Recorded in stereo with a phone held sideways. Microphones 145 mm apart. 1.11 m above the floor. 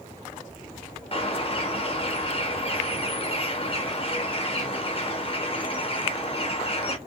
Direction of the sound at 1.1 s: 40° left (ahead or behind).